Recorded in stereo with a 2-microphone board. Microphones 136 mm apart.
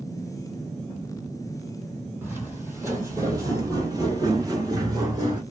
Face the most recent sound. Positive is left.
turn(degrees=-25)  # may be behind; listen again after turning